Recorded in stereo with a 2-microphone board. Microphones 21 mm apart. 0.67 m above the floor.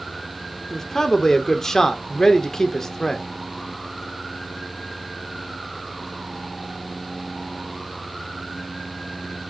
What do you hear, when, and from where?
0.7 s a man speaking: 25° left (ahead or behind), 1.7 m